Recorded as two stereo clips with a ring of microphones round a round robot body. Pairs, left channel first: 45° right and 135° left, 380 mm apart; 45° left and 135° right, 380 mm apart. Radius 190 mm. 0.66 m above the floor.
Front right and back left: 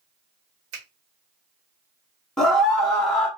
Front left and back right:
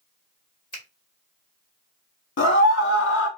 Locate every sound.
0.7 s a finger snap: 120° left, 1.8 m
2.4 s a scream: 45° left, 0.5 m